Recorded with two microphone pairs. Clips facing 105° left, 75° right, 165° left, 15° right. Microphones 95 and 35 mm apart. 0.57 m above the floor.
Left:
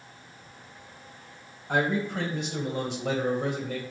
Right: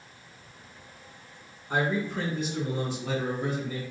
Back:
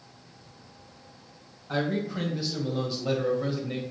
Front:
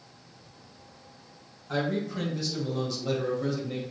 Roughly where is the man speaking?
Left.